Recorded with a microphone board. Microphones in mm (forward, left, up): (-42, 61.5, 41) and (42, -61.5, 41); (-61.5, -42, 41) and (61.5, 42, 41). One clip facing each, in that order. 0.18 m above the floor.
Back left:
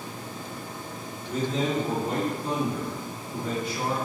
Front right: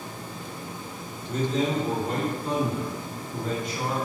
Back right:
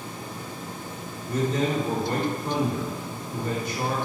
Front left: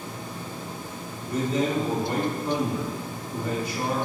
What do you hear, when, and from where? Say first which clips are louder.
1.2 s a man speaking: front right 1 dB, even; 155° right, 2.0 m